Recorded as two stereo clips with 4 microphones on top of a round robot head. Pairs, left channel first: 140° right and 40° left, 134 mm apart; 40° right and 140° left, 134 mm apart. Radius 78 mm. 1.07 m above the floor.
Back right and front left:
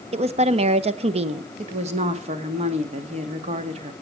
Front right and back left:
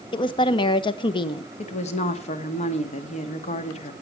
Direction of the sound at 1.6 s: Straight ahead.